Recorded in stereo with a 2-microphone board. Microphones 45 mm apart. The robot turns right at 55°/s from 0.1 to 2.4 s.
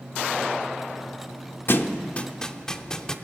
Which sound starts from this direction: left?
A thud, at 1.7 s.